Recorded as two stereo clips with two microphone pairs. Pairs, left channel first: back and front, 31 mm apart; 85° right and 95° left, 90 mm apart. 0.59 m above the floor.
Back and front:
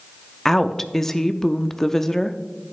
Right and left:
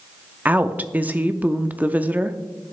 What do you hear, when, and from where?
0.5 s a woman speaking: 125° left, 0.6 m